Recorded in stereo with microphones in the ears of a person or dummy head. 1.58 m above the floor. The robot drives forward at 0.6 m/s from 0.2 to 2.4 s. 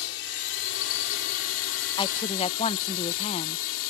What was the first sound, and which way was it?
A drone, 70° left (ahead or behind).